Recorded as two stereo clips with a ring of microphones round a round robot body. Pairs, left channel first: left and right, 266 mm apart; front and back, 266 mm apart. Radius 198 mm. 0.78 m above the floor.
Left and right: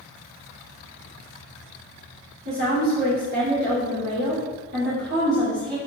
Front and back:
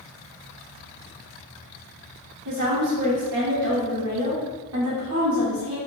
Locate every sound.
2.5 s a woman speaking: 150° right, 2.5 m